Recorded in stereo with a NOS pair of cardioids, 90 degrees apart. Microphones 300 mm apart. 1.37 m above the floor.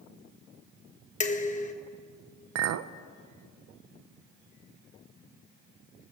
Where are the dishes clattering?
25° left, 1.1 m.